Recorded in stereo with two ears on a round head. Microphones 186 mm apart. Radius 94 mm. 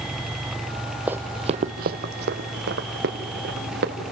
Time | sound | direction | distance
1.1 | running footsteps | 5° right (ahead or behind) | 0.7 m